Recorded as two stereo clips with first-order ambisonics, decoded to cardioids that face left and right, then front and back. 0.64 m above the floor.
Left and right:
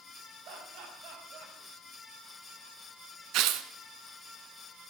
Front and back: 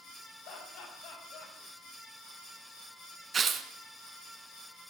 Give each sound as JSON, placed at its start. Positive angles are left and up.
{"t": 0.5, "sound": "laughter", "azimuth_deg": -40, "distance_m": 5.0}
{"t": 3.3, "sound": "tearing paper", "azimuth_deg": -115, "distance_m": 0.9}